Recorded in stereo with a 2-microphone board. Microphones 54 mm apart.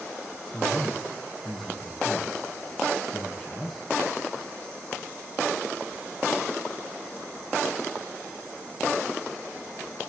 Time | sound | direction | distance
0.5 | a man speaking | 5° left (ahead or behind) | 2.5 m